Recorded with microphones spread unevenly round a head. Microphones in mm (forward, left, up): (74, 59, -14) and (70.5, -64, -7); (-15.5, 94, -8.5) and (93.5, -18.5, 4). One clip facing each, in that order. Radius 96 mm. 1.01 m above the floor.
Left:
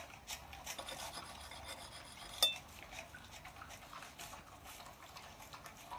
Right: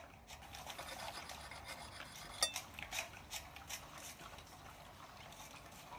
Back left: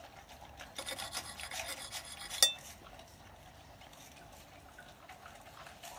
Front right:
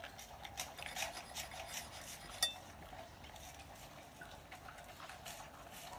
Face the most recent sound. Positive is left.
turn(degrees=170)